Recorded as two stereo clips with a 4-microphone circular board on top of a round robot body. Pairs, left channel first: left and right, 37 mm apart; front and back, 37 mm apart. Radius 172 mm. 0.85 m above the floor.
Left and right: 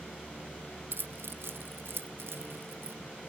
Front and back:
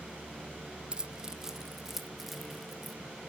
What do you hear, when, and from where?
0.9 s keys jangling: 115° right, 0.8 m; by 3.0 s 90° right, 2 m